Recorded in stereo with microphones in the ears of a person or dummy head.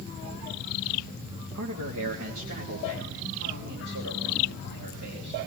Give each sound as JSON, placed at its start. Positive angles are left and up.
{"t": 1.5, "sound": "a man speaking", "side_deg": -65, "distance_m": 2.0}